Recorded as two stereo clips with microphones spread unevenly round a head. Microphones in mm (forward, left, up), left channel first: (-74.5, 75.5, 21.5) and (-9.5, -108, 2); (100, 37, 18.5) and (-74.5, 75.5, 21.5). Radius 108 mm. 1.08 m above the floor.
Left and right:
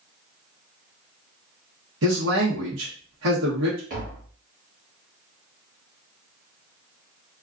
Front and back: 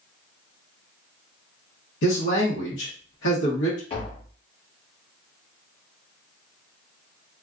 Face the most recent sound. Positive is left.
turn(degrees=-45)